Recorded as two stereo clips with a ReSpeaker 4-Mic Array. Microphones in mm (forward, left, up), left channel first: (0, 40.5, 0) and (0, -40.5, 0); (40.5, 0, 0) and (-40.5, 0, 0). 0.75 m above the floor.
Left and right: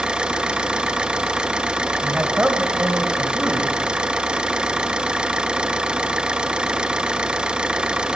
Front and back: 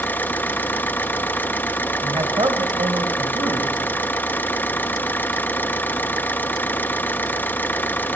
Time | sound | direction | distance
0.0 | an engine running | 25° right | 0.7 m
2.0 | a man speaking | 160° right | 3 m